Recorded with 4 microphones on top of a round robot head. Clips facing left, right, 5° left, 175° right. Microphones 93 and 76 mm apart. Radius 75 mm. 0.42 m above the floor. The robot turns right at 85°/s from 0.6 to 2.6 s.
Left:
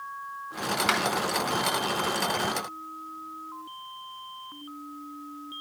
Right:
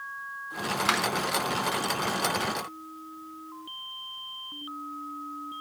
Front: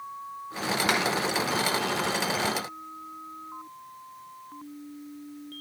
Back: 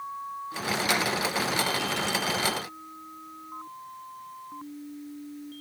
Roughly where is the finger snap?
Ahead right.